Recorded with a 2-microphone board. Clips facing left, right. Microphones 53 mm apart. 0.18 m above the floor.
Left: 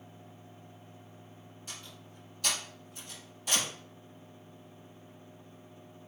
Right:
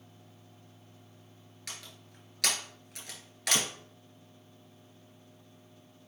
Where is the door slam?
70° right (ahead or behind), 1.9 m.